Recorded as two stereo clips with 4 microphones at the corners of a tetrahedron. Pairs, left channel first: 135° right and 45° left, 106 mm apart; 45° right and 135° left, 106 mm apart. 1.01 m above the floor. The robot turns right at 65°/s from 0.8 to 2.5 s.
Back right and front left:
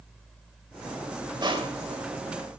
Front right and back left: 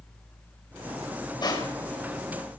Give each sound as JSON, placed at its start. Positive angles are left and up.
{"t": 1.4, "sound": "crushing", "azimuth_deg": 0, "distance_m": 3.5}